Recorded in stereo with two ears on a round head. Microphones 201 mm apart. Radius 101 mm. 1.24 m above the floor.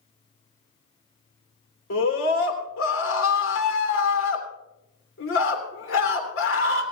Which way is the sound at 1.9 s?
60° left (ahead or behind).